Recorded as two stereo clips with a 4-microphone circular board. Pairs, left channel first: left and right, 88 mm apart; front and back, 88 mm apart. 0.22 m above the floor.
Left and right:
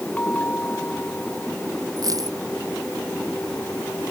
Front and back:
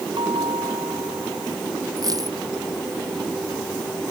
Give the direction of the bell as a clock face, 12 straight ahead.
7 o'clock.